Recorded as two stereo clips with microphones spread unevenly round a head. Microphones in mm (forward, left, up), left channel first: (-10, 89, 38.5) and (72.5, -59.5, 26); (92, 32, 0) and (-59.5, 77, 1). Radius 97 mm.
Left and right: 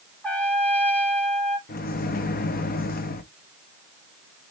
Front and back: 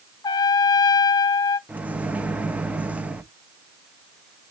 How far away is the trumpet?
About 0.8 m.